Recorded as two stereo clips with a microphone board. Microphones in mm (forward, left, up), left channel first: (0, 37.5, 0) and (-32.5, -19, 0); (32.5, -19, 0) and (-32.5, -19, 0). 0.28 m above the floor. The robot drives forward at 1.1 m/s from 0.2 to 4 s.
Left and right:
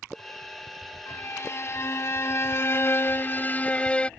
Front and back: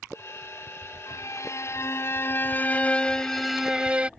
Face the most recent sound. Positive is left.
turn(degrees=120)